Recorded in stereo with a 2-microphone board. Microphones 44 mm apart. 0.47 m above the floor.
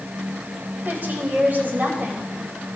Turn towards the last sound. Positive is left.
turn(degrees=-45)  # may be behind; listen again after turning